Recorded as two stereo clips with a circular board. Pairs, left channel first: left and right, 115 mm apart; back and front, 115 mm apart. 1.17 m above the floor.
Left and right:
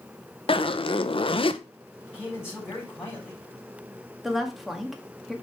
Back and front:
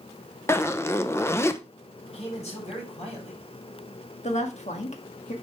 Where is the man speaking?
175° right, 4.5 m.